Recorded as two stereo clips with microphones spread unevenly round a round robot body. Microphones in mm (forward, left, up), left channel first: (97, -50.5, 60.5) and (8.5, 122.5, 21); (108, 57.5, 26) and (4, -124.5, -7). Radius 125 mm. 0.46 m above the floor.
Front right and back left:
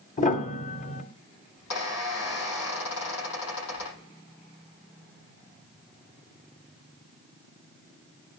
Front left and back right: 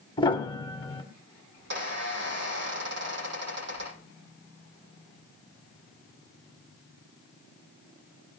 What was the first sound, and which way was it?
A piano, 10° right.